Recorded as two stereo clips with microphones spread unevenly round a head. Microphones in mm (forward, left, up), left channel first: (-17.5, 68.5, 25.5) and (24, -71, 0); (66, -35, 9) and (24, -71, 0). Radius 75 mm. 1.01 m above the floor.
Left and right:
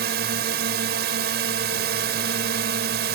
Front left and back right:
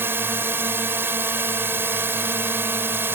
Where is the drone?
90° right.